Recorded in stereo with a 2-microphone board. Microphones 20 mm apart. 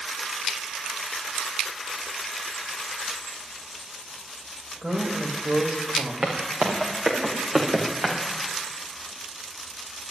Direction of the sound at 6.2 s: 80° right.